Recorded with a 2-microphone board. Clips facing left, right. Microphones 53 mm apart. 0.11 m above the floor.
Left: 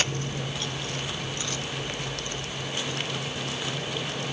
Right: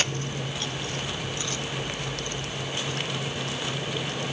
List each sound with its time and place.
Only background noise.